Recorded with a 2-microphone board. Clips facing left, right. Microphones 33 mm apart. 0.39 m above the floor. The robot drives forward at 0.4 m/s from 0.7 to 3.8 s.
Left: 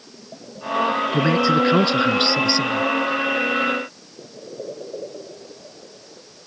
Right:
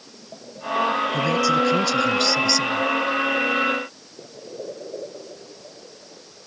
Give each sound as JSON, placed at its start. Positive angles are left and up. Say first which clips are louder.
{"t": 1.1, "sound": "a man speaking", "louder": "left 4 dB", "side_deg": 35}